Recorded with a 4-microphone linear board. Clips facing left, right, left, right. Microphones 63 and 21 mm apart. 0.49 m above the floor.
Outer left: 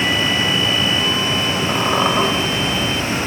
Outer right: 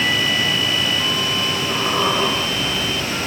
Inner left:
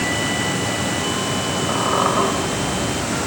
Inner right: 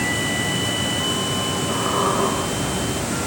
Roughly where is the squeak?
Left.